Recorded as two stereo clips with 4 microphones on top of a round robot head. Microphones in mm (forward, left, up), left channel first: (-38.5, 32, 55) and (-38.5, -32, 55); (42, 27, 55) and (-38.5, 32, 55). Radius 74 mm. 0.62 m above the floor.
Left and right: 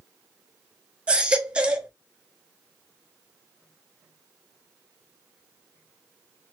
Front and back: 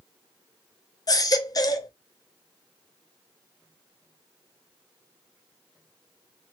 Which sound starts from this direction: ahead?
A baby crying, at 1.1 s.